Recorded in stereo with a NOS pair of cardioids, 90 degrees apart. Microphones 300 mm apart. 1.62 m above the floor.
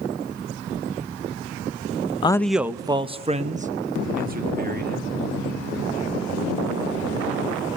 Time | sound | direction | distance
2.2 | a man speaking | 15° left | 0.6 m